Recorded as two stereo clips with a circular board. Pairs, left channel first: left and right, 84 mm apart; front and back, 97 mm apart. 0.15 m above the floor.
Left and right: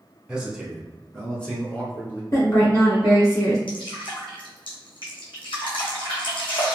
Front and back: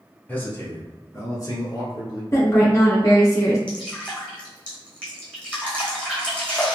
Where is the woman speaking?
50° left, 1.9 m.